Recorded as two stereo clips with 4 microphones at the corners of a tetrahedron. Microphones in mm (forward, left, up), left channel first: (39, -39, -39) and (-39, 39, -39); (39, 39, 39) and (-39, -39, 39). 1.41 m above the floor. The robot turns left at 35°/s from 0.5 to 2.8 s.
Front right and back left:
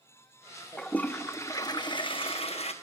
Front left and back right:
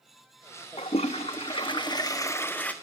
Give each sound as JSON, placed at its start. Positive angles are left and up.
{"t": 0.8, "sound": "a toilet flushing", "azimuth_deg": 35, "distance_m": 1.1}